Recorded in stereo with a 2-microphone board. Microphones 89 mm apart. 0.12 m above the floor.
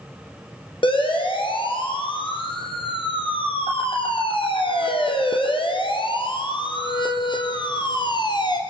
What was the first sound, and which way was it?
A siren, 70° left (ahead or behind).